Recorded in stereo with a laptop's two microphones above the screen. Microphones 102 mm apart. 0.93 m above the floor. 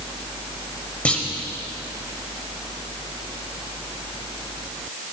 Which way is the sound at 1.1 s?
15° left (ahead or behind).